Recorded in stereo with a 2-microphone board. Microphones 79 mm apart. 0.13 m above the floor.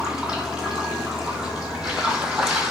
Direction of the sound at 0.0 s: 10° right (ahead or behind).